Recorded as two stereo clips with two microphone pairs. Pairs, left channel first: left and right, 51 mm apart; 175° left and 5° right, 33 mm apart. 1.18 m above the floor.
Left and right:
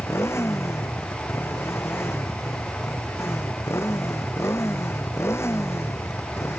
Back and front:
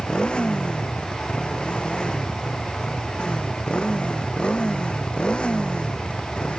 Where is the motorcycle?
115° left.